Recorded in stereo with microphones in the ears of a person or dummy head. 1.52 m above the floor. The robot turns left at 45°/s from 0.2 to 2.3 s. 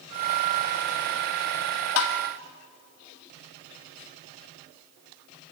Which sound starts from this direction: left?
Tapping, at 2.0 s.